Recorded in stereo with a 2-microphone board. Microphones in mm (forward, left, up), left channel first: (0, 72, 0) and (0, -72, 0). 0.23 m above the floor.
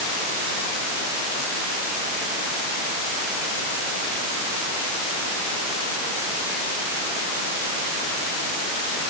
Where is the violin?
I don't hear a violin.